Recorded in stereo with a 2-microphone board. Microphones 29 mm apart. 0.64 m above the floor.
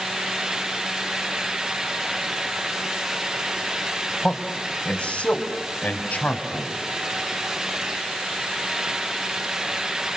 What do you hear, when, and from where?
4.2 s a man speaking: 35° left (ahead or behind), 3.5 m; by 6.8 s 65° left (ahead or behind), 4.5 m